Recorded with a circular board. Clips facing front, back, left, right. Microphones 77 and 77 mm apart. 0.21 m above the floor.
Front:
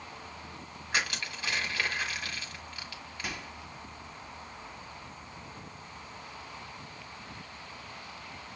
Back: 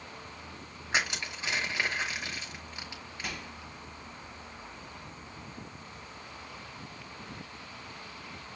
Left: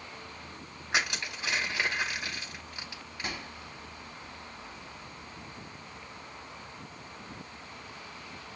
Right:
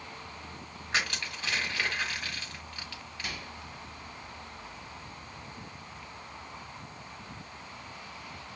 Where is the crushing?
140° left, 1.3 m.